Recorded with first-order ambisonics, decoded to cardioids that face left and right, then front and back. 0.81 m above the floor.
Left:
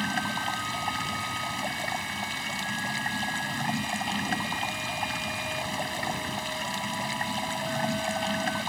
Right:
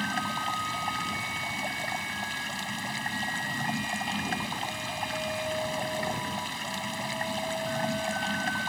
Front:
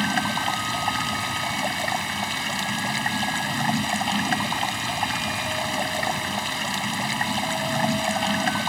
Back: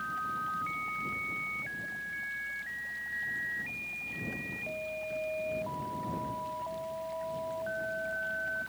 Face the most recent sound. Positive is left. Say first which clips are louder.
# left 1 dB, front 11 dB
turn(degrees=10)